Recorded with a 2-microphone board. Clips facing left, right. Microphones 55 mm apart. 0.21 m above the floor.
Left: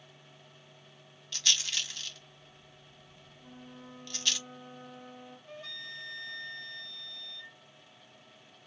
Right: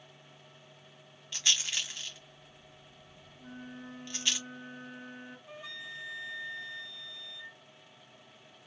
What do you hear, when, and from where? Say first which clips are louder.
1.3 s a rattle: even; 20° right (ahead or behind), 1.4 m
3.4 s a flute: right 4 dB; 60° right (ahead or behind), 2.5 m
5.5 s a flute: left 1 dB; 15° right (ahead or behind), 0.7 m